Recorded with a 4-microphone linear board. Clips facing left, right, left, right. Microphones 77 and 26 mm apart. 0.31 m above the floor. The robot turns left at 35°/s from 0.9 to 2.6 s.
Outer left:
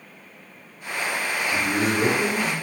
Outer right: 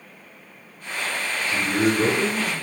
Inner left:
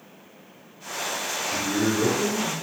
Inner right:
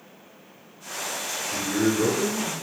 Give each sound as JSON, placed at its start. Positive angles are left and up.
{"t": 1.5, "sound": "a man speaking", "azimuth_deg": -160, "distance_m": 1.2}